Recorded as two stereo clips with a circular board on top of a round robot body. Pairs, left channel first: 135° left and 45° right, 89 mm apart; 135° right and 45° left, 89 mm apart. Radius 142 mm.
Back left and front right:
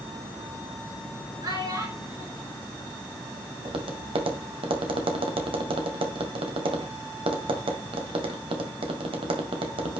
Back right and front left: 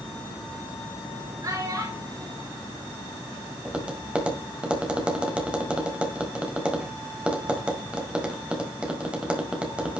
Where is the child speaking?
5° right, 6.5 m.